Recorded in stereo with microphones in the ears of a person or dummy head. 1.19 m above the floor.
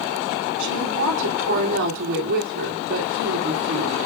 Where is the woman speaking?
65° right (ahead or behind), 3 m.